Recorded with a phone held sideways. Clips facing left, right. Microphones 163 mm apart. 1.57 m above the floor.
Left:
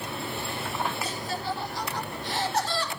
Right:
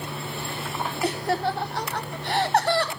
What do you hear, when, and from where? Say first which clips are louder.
1.0 s laughter: right 7 dB; 65° right (ahead or behind), 0.8 m